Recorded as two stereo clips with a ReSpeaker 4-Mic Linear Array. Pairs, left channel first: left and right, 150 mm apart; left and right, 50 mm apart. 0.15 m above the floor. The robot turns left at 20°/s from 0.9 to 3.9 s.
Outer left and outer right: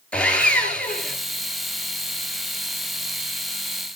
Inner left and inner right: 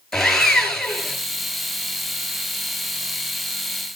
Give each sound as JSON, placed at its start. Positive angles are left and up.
{"t": 0.1, "sound": "sawing", "side_deg": 5, "distance_m": 2.5}